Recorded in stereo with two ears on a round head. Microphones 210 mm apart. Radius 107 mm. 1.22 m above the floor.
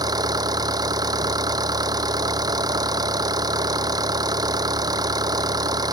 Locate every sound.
0.0 s an engine running: 15° right (ahead or behind)